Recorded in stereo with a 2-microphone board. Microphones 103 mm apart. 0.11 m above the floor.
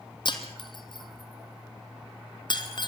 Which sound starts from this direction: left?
Breaking glass, at 0.2 s.